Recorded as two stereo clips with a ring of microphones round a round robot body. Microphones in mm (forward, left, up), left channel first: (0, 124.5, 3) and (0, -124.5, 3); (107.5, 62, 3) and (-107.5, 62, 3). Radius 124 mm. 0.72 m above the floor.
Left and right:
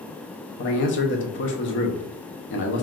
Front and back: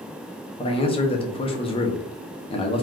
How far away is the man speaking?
About 0.7 m.